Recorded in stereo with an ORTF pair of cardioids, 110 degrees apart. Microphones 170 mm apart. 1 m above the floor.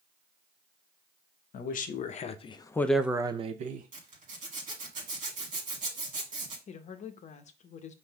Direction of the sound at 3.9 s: 45° right.